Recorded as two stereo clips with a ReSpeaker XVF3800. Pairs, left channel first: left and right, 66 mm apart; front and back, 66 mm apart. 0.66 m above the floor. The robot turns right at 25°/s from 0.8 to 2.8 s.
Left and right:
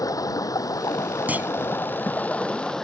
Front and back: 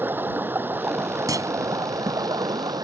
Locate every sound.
0.0 s running water: 120° left; by 2.8 s 170° left
1.3 s a clunk: 155° right; by 1.5 s 150° right